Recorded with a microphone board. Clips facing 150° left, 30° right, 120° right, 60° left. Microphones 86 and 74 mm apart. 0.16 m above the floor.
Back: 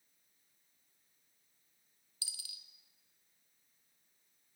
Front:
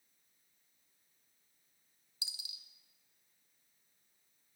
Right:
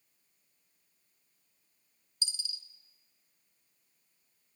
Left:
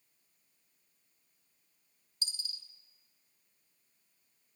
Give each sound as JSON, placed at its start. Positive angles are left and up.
{"t": 2.2, "sound": "a dropped coin", "azimuth_deg": 35, "distance_m": 0.7}